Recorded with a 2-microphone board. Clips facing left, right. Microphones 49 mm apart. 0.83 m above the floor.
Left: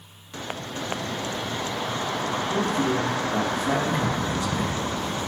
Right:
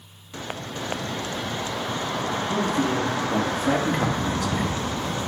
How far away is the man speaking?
About 1.8 m.